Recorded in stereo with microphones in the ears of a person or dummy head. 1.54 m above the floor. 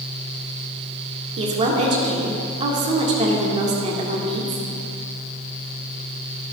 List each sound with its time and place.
1.4 s a woman speaking: 30° right (ahead or behind), 1.7 m